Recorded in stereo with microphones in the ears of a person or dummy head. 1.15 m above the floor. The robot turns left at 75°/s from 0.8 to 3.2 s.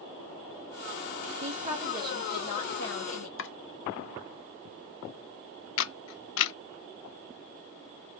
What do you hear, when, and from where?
1.4 s a woman speaking: 130° right, 2 m; by 3.3 s 95° left, 2 m
3.4 s chopping: 60° left (ahead or behind), 0.7 m
5.8 s a camera shutter: 75° left (ahead or behind), 0.6 m